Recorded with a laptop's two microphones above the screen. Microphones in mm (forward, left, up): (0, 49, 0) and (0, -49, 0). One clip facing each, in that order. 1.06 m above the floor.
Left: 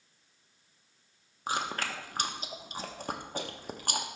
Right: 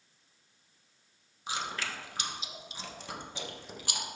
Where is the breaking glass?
No breaking glass in this recording.